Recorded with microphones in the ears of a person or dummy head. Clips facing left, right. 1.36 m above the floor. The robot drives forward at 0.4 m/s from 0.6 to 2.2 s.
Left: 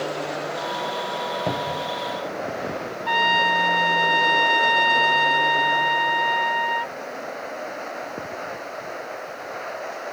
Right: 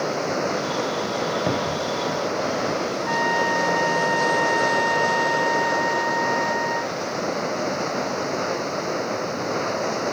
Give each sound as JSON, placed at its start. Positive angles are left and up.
{"t": 0.0, "sound": "running water", "side_deg": -60}
{"t": 1.5, "sound": "a cupboard door", "side_deg": -15}
{"t": 3.1, "sound": "a trumpet", "side_deg": 50}